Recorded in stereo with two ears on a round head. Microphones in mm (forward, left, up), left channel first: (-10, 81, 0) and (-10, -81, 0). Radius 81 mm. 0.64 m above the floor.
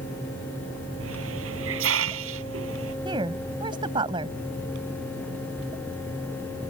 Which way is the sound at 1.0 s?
85° right.